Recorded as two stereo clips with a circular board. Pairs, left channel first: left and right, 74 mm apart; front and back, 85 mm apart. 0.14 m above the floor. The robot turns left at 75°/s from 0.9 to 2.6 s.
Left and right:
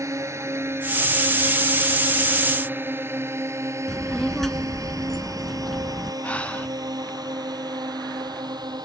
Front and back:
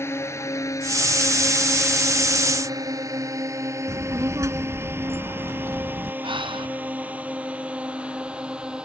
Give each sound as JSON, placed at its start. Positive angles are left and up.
{"t": 0.0, "sound": "a drone", "azimuth_deg": -55}
{"t": 3.9, "sound": "a child speaking", "azimuth_deg": 175}
{"t": 6.2, "sound": "breathing", "azimuth_deg": 165}